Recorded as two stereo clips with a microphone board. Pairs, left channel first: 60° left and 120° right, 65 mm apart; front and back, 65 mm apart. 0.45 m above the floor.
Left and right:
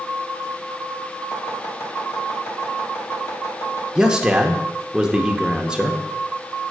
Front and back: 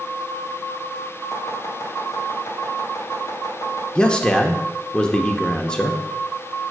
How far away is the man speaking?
About 0.9 m.